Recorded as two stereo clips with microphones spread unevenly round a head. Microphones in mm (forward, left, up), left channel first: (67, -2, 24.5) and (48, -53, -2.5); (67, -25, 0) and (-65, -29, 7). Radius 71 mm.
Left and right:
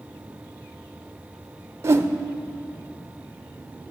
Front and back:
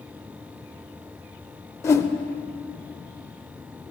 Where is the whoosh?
70° right, 0.7 m.